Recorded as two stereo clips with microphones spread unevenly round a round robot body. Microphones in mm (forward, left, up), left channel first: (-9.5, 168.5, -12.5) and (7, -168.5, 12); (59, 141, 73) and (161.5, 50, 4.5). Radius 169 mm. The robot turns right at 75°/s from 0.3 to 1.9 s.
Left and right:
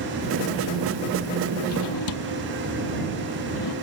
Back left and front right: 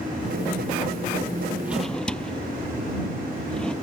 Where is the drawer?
40° left; by 3.7 s 60° left.